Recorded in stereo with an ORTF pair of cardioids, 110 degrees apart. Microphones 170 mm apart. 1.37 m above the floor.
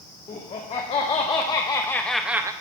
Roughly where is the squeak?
I don't hear a squeak.